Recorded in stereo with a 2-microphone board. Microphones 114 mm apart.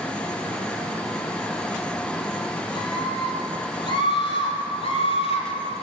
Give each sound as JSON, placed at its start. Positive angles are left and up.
{"t": 2.7, "sound": "a scream", "side_deg": 40, "distance_m": 9.0}